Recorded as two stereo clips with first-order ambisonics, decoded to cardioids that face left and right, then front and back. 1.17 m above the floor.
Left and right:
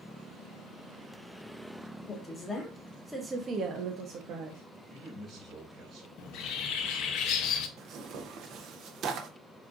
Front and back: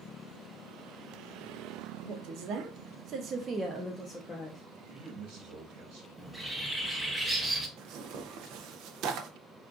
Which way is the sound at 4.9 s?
165° right.